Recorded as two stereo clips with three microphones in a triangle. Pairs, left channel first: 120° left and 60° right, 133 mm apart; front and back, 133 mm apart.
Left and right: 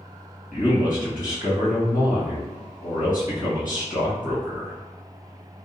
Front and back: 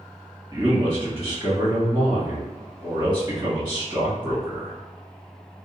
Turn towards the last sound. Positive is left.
turn(degrees=125)